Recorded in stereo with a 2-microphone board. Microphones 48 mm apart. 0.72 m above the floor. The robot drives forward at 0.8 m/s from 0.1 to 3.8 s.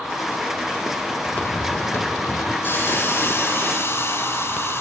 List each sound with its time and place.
1.2 s footsteps: 30° left (ahead or behind), 1.1 m; by 2.5 s 65° left (ahead or behind), 2 m
2.6 s a hiss: 50° left (ahead or behind), 5.5 m; by 4.8 s 55° left (ahead or behind), 5 m